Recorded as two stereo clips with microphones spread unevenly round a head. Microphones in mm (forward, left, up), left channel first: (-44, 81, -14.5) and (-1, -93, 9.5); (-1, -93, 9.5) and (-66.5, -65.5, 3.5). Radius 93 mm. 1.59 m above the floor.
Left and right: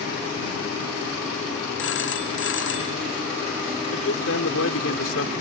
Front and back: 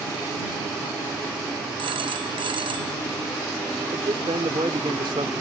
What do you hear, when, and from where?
1.8 s a phone ringing: 125° left
3.9 s a man speaking: 110° left